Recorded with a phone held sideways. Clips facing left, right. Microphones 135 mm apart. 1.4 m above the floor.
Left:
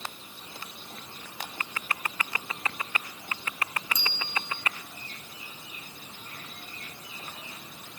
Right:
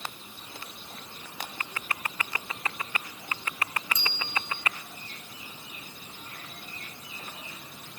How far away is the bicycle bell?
About 9 m.